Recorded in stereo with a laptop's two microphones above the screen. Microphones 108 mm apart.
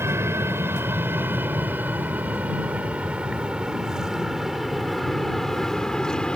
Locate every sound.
0.0 s an aircraft: 25° right (ahead or behind); by 6.4 s 10° left (ahead or behind)